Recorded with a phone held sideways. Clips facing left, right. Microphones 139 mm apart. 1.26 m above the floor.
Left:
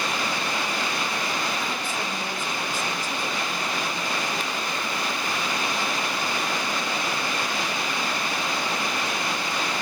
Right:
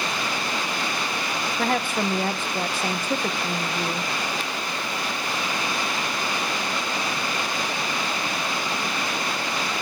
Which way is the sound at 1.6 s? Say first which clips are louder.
Right 6 dB; 65° right (ahead or behind).